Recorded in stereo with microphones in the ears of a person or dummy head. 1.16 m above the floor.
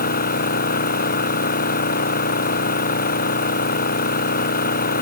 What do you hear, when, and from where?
0.0 s an engine running: 55° left (ahead or behind)